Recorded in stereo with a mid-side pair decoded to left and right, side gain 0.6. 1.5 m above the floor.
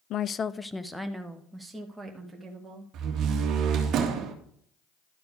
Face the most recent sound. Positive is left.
turn(degrees=-60)